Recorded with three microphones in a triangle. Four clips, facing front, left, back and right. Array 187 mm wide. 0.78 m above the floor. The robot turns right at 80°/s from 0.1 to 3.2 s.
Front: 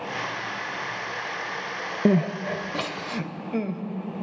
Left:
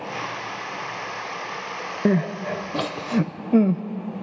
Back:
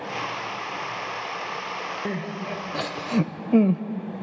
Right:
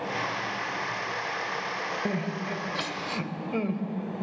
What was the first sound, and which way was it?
Crying, 35° left.